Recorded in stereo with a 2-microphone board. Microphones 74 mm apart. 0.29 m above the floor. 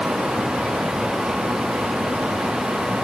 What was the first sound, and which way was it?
Only background noise.